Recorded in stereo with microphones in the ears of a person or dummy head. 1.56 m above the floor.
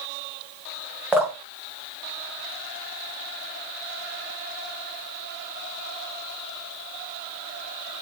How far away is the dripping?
About 0.5 m.